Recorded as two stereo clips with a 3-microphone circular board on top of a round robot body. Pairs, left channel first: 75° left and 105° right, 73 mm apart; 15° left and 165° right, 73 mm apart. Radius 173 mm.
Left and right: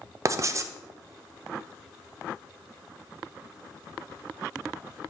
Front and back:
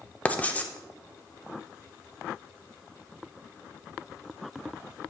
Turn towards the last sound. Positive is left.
turn(degrees=-55)